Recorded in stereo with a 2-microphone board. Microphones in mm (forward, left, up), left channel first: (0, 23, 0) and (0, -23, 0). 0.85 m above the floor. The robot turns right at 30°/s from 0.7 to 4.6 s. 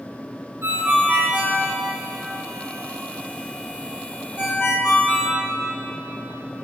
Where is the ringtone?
60° right (ahead or behind), 4 m; by 5.4 s 55° left (ahead or behind), 4 m.